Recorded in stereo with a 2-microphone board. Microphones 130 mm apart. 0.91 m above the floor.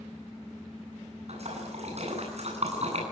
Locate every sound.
1.3 s a splash: 55° right (ahead or behind), 10 m